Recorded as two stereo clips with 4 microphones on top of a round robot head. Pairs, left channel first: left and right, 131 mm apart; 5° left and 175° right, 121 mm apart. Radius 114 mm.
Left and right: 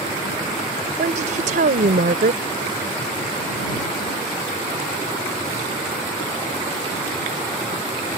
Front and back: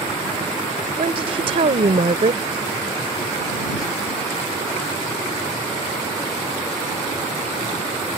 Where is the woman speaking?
125° right.